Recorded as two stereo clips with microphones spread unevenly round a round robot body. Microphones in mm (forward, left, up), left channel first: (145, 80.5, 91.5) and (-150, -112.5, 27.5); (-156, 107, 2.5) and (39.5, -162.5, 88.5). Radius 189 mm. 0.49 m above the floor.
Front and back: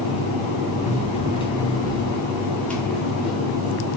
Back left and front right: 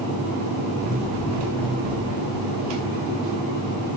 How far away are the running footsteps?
About 4.5 m.